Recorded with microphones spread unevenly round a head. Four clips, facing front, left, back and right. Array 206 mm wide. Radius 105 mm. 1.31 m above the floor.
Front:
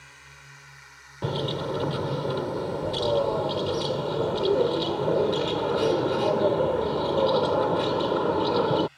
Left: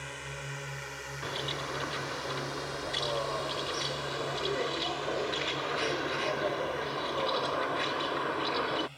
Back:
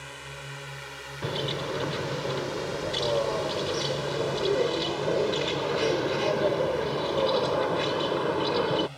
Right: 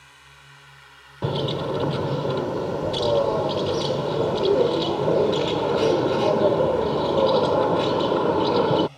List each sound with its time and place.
0.0 s a drone: 130° left; by 9.0 s 165° right
1.2 s a bird: 80° right